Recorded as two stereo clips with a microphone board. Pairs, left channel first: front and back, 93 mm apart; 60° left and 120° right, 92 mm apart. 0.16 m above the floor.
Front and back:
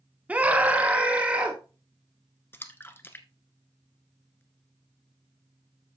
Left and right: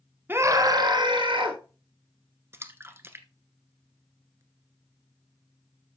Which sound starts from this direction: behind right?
A scream, at 0.3 s.